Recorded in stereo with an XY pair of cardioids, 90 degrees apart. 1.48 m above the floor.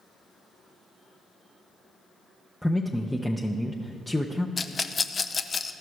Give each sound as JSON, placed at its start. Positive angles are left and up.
{"t": 2.6, "sound": "a man speaking", "azimuth_deg": 0, "distance_m": 0.7}
{"t": 4.6, "sound": "a rattle", "azimuth_deg": 35, "distance_m": 0.5}